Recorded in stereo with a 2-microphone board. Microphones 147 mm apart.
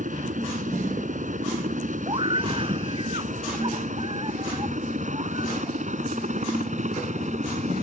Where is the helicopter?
60° right (ahead or behind); by 7.8 s 55° right (ahead or behind).